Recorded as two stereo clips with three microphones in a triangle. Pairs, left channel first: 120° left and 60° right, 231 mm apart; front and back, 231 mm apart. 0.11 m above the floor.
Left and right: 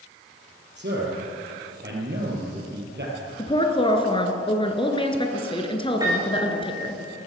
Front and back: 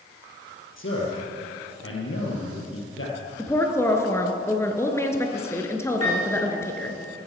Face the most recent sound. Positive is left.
turn(degrees=15)